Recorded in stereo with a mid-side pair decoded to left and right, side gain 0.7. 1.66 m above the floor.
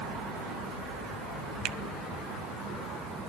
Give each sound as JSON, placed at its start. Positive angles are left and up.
{"t": 1.6, "sound": "a finger snap", "azimuth_deg": -55, "distance_m": 1.1}